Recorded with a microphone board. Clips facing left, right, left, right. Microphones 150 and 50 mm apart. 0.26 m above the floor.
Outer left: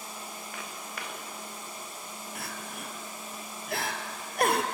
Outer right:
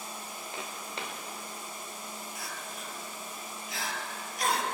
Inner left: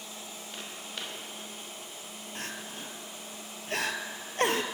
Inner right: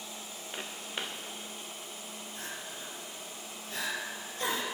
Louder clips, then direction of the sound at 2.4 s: Outer left 2 dB, inner left 4 dB; 60° left (ahead or behind).